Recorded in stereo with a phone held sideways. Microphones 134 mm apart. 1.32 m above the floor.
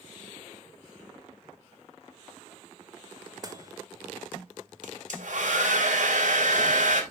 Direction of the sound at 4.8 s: 70° right (ahead or behind).